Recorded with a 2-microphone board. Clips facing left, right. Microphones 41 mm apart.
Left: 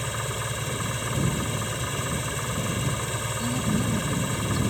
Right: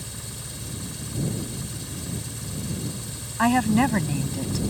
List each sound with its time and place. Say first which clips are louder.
0.0 s an engine running: left 10 dB; 55° left (ahead or behind)
3.4 s a woman speaking: right 10 dB; 75° right (ahead or behind)